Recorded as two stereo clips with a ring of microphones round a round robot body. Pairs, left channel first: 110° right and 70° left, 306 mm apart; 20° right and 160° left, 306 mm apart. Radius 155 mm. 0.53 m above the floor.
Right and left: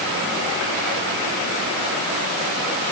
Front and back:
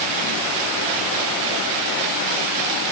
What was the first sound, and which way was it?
Only background noise.